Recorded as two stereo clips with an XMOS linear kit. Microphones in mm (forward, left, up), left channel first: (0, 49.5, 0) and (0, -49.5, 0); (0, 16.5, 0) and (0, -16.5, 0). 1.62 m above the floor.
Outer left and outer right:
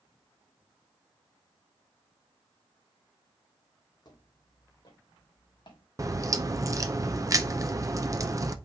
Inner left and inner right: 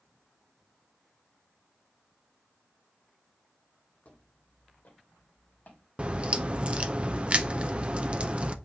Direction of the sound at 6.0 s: 35° right (ahead or behind).